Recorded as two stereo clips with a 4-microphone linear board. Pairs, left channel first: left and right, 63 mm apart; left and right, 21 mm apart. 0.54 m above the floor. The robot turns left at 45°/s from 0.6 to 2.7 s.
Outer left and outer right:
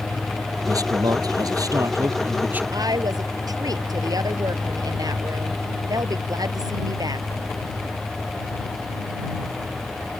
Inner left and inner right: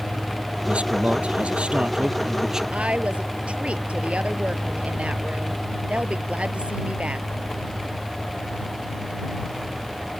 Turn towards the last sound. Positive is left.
turn(degrees=-85)